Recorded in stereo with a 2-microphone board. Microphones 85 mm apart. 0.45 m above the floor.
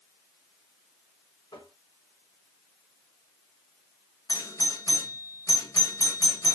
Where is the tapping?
75° left (ahead or behind), 3.5 m.